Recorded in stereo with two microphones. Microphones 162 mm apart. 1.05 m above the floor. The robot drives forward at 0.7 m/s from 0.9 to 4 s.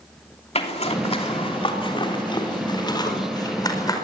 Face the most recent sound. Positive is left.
turn(degrees=25)  # may be behind; listen again after turning